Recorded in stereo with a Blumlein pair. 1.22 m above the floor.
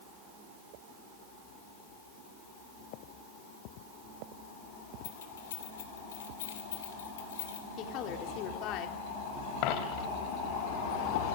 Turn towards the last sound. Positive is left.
turn(degrees=45)